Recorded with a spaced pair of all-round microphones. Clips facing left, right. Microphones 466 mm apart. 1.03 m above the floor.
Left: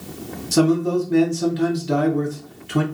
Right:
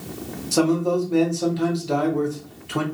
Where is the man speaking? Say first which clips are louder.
Left 2 dB; 35° left (ahead or behind), 0.7 m.